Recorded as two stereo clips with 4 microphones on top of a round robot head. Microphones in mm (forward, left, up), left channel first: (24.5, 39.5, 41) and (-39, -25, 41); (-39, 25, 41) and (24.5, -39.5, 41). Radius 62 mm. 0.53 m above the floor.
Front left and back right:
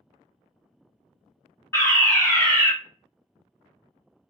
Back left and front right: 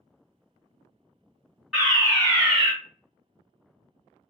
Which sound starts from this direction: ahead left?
A fire alarm, at 1.7 s.